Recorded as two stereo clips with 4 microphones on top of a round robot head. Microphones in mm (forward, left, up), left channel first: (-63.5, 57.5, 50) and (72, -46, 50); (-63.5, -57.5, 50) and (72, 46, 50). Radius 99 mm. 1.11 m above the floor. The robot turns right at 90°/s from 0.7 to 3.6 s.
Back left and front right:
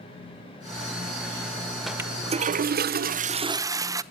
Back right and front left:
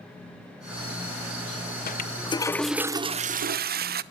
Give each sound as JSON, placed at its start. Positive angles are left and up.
{"t": 1.9, "sound": "a toilet flushing", "azimuth_deg": -125, "distance_m": 0.8}